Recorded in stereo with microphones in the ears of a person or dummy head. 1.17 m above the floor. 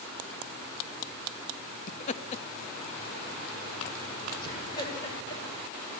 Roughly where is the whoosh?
No whoosh in this recording.